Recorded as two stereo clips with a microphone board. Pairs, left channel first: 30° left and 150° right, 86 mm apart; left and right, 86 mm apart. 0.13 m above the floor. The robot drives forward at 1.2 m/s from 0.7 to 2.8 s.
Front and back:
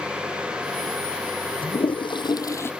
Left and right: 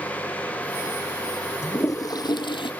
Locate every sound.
1.6 s a toilet flushing: 30° left; by 2.7 s 95° left